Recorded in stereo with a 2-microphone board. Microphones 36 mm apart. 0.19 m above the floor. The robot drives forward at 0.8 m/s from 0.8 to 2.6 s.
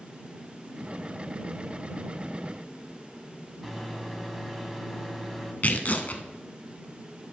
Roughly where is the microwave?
Centre.